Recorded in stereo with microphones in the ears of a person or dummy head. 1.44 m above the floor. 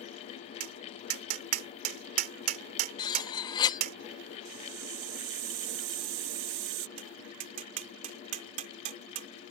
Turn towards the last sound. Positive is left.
turn(degrees=-50)  # may be behind; listen again after turning